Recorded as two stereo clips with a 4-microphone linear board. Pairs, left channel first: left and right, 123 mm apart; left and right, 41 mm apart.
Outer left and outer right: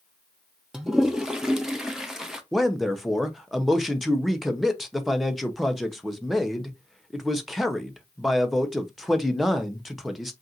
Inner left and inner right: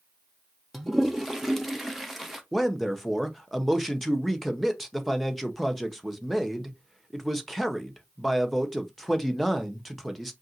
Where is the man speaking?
Centre (ahead or behind), 0.7 m.